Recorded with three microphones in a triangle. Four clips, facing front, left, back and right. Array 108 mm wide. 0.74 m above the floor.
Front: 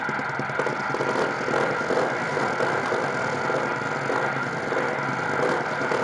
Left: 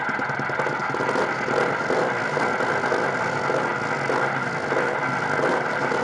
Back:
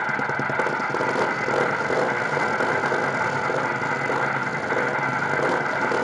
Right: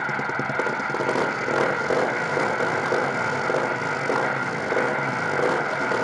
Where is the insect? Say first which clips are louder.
Left 1 dB, back 3 dB; 175° left, 4.5 m.